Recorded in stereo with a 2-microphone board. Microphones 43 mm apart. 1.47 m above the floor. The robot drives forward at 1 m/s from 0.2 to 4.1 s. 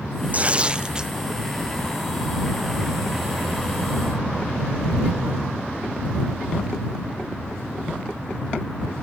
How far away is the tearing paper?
About 0.7 m.